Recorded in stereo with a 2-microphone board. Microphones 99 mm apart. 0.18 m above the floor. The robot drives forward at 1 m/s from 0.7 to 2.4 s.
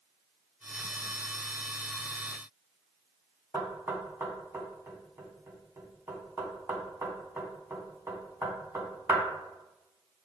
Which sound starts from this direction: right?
Knocking, at 3.5 s.